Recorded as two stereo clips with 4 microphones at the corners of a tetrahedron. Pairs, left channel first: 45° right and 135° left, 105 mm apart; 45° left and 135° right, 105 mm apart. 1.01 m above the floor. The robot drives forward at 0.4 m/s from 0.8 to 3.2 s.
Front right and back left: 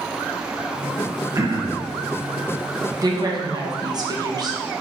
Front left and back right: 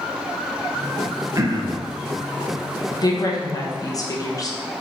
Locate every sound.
1.4 s throat clearing: straight behind, 0.5 m
3.0 s a woman speaking: 90° left, 0.8 m; by 4.6 s 95° left, 0.8 m